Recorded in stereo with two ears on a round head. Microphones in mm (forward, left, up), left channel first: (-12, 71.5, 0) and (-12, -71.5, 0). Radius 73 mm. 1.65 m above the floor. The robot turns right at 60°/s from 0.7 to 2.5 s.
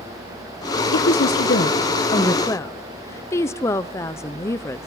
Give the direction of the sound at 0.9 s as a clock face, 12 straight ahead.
9 o'clock.